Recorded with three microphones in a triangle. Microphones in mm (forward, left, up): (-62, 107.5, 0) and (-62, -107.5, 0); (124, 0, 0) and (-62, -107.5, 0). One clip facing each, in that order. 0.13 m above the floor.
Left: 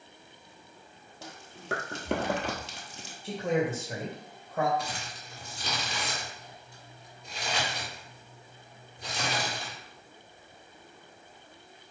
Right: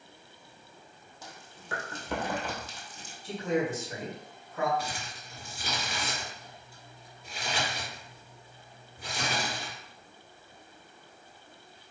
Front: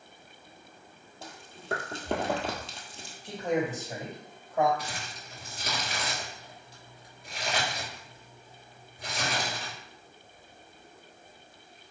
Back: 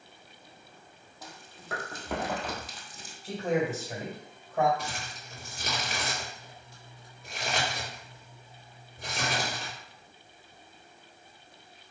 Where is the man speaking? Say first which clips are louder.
Left 1 dB, back 1 dB; 120° left, 2.5 m.